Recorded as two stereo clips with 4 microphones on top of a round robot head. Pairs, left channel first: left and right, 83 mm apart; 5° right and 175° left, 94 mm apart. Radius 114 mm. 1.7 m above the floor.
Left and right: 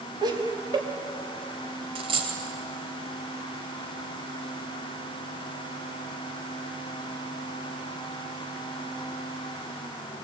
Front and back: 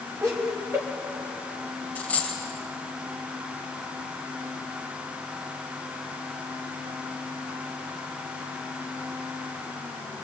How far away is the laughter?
About 4 m.